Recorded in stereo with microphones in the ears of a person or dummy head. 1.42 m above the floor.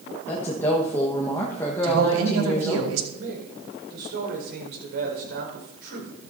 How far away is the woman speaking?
About 1.4 m.